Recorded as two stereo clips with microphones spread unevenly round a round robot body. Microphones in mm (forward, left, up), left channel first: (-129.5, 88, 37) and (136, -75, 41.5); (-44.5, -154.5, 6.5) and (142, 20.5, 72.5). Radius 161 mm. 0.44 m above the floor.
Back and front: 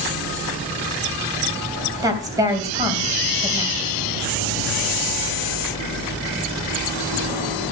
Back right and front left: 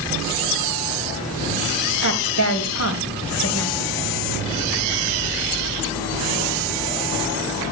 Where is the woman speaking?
110° right, 3 m.